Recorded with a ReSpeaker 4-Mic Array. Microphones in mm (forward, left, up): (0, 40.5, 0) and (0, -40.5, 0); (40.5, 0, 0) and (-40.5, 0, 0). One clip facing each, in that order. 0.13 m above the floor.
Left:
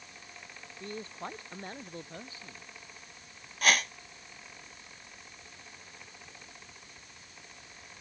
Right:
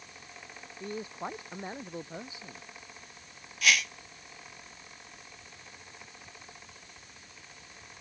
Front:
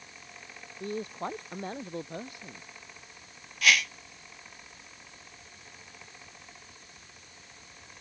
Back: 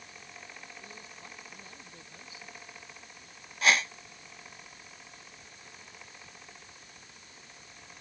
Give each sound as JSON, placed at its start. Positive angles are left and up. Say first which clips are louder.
{"t": 0.8, "sound": "a man speaking", "louder": "right 3 dB, front 14 dB", "azimuth_deg": -10}
{"t": 3.6, "sound": "a whoosh", "louder": "left 1 dB, even", "azimuth_deg": 130}